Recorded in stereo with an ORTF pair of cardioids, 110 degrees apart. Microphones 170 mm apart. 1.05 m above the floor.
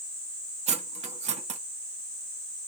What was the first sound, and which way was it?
Cutlery clinking, 40° right.